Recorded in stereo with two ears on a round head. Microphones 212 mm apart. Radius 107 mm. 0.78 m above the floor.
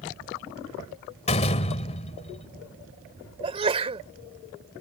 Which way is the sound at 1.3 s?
30° left (ahead or behind).